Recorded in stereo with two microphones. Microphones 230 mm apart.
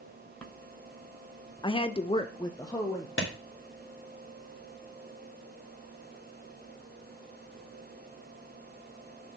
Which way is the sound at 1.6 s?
20° left (ahead or behind).